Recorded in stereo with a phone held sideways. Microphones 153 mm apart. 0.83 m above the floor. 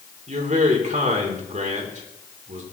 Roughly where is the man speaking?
Right.